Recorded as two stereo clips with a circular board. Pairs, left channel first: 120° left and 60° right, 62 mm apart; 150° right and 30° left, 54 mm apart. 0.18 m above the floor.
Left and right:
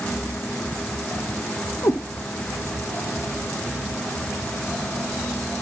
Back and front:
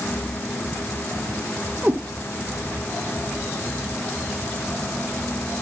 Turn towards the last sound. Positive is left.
turn(degrees=95)